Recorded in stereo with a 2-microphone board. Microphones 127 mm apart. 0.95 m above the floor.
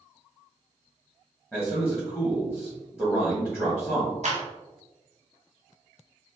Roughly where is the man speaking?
Centre.